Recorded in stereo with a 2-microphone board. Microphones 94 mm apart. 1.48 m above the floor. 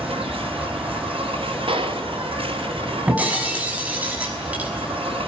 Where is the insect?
80° right, 4.5 m.